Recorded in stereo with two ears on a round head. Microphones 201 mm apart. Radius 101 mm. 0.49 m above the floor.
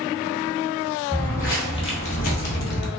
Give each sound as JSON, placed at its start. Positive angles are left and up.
{"t": 1.1, "sound": "footsteps", "side_deg": 10, "distance_m": 1.1}